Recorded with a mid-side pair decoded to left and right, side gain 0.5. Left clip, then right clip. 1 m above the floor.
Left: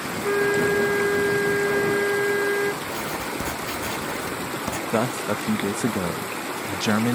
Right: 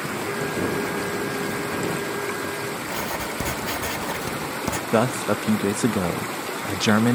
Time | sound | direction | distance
0.2 | a flute | 60° left | ?
2.8 | writing | 25° right | ?
4.9 | a man speaking | 20° right | ?